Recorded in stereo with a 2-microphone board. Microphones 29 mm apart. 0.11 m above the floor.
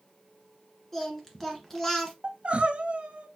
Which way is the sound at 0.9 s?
10° left (ahead or behind).